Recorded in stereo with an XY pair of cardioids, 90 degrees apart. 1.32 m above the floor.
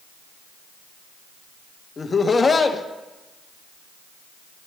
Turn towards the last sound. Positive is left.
turn(degrees=35)